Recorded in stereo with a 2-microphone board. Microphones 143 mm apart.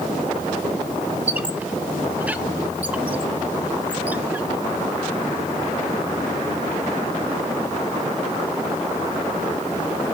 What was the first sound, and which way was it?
A squeak, 10° right (ahead or behind).